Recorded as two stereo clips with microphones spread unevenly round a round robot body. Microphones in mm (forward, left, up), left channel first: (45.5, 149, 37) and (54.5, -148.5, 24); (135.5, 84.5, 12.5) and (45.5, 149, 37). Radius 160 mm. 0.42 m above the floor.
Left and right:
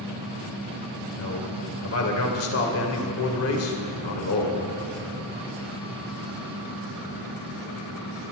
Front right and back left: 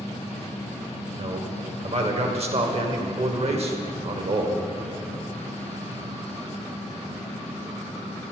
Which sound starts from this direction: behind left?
A man speaking, at 1.2 s.